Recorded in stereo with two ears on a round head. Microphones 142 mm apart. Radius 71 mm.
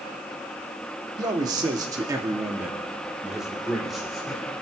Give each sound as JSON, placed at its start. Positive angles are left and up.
{"t": 1.2, "sound": "a man speaking", "side_deg": -25, "distance_m": 1.2}